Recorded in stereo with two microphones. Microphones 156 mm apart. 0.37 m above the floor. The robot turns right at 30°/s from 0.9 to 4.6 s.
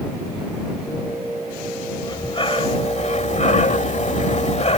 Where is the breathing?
40° left; by 4.8 s 115° left.